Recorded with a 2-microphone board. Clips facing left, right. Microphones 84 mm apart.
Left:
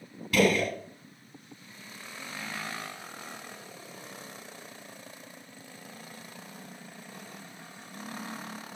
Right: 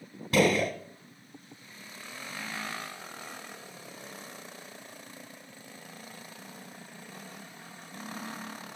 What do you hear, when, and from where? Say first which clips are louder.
0.3 s a gunshot: even; 30° right (ahead or behind), 0.7 m